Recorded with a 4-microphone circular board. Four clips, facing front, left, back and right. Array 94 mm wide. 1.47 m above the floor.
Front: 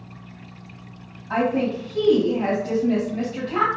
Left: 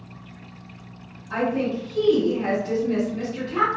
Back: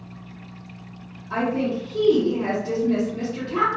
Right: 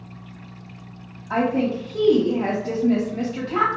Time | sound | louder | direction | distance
1.3 | a woman speaking | right 3 dB, front 2 dB | 60° right | 1.7 m